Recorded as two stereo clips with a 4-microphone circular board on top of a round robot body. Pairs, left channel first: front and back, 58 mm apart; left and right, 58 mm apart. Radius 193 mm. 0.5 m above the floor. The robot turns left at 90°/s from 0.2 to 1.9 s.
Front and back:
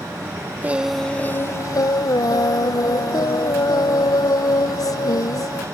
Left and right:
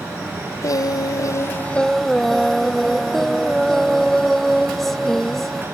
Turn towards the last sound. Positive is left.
turn(degrees=5)